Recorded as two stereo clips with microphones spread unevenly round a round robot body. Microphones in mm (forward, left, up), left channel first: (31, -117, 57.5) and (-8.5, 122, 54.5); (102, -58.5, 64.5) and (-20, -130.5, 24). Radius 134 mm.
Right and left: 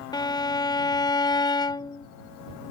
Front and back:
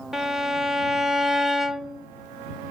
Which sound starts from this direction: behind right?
A violin, at 0.1 s.